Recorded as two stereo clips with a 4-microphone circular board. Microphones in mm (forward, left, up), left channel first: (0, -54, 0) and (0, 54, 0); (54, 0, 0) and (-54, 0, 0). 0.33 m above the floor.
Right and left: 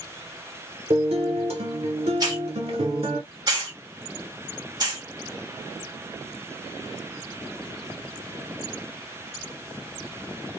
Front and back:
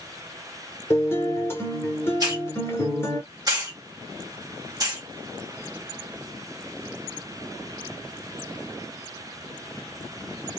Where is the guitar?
65° left, 1.2 m.